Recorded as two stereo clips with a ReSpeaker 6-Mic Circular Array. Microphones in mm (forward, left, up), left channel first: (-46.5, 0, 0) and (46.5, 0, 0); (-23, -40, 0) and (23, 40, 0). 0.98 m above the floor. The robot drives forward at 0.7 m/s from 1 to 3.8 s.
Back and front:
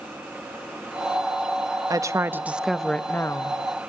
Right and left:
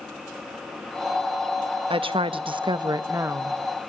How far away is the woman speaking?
About 0.9 m.